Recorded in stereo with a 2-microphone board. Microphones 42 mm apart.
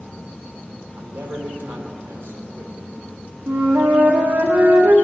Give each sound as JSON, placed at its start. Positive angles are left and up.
{"t": 1.0, "sound": "a man speaking", "side_deg": -85, "distance_m": 3.0}
{"t": 3.5, "sound": "a flute", "side_deg": -70, "distance_m": 1.5}